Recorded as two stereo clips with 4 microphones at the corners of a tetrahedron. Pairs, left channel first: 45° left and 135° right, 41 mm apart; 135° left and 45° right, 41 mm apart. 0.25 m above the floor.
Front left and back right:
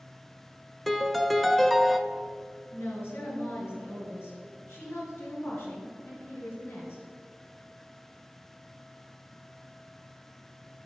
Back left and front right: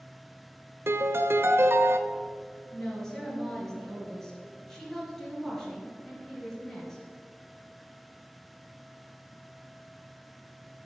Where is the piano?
40° right, 0.7 m.